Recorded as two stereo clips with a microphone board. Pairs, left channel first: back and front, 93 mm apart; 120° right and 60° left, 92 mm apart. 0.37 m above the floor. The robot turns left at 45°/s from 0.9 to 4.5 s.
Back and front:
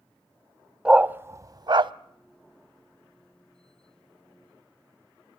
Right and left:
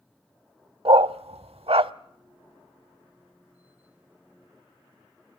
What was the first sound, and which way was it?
A dog barking, 80° left.